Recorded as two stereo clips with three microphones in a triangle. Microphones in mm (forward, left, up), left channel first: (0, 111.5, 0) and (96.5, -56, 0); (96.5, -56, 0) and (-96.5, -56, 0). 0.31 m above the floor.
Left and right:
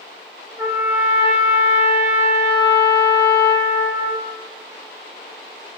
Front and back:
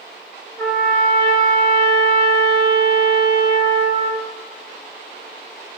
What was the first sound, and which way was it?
A trumpet, 30° right.